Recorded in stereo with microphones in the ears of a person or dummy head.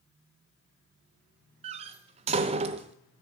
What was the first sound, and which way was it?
A door slam, 35° right (ahead or behind).